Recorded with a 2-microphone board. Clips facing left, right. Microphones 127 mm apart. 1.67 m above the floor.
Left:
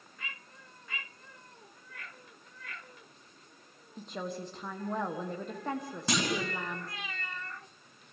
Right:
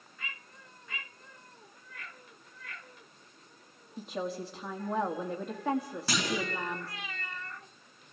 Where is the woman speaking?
5° right (ahead or behind), 1.5 m.